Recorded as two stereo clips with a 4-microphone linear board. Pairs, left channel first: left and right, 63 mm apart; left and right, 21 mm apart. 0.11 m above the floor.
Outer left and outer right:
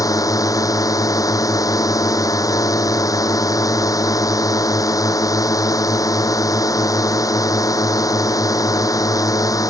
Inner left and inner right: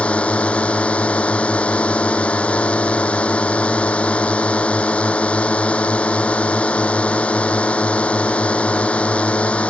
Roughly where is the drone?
Left.